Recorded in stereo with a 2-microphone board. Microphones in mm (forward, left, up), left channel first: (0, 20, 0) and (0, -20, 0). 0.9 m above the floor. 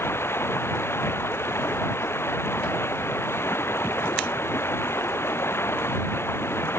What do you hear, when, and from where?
0.0 s running water: 90° left